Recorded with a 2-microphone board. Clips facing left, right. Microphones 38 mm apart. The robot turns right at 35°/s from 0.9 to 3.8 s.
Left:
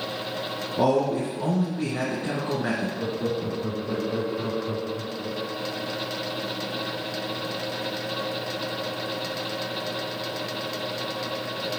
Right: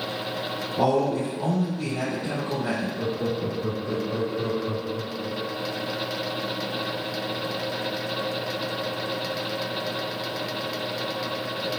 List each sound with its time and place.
0.8 s a man speaking: 10° left, 1.5 m; by 2.9 s 80° left, 1.5 m
3.0 s laughter: 15° right (ahead or behind), 1.9 m; by 5.5 s centre (ahead or behind), 1.9 m